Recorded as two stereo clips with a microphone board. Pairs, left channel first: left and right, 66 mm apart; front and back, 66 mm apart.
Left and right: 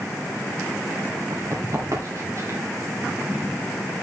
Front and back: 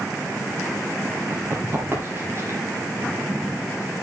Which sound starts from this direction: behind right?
Running footsteps, at 1.3 s.